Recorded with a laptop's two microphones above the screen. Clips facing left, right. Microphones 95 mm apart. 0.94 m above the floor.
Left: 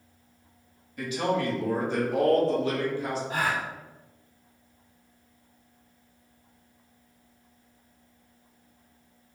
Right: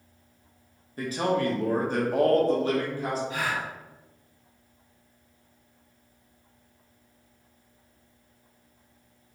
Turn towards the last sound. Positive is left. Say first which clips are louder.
# left 2 dB
turn(degrees=45)  # may be behind; listen again after turning